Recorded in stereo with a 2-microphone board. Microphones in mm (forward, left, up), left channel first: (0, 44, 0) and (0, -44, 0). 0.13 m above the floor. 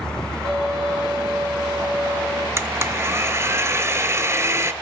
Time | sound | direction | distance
0.5 | a violin | 70° right (ahead or behind) | 4.5 m
2.6 | a blender | 30° right (ahead or behind) | 0.7 m